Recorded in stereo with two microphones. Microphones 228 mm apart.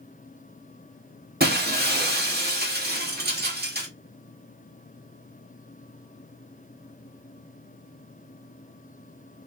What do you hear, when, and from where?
1.4 s breaking glass: 45° right (ahead or behind), 1.2 m